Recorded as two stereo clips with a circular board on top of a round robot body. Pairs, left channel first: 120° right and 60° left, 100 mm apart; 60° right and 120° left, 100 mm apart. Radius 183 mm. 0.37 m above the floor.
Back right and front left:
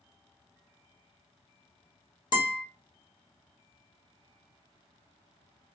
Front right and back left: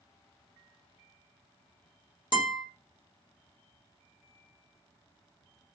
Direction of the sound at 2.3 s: 90° right.